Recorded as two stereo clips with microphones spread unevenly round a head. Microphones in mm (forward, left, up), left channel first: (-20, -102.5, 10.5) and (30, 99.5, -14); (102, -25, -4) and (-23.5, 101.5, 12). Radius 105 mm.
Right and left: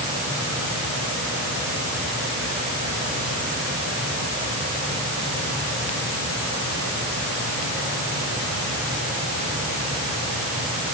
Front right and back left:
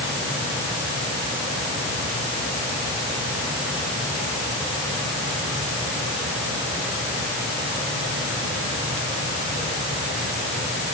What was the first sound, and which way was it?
Only background noise.